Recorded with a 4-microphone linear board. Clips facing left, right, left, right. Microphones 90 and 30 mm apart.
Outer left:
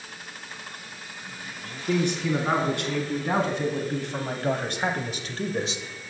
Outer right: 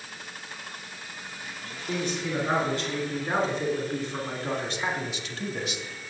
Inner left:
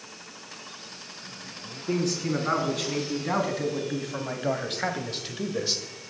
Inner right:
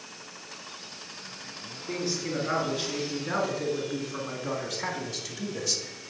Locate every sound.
1.9 s a man speaking: 65° left (ahead or behind), 4 m; by 6.1 s 15° left (ahead or behind), 1.1 m